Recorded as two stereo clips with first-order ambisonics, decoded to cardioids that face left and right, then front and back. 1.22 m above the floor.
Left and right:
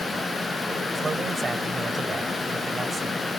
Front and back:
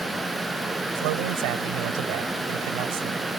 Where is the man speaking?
165° right.